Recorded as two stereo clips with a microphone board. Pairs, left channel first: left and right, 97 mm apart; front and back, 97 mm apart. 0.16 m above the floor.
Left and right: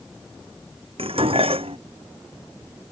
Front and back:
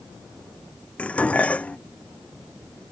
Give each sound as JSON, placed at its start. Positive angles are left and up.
{"t": 1.0, "sound": "dishes clattering", "azimuth_deg": -75}